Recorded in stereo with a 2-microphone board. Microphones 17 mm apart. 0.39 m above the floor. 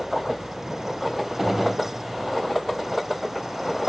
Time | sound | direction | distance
1.4 | a gunshot | 15° right (ahead or behind) | 2.5 m